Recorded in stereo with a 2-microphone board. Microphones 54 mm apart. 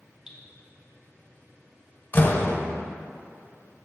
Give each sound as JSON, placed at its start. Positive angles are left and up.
{"t": 0.3, "sound": "dripping", "side_deg": -10, "distance_m": 1.5}
{"t": 2.1, "sound": "a door slam", "side_deg": 45, "distance_m": 1.0}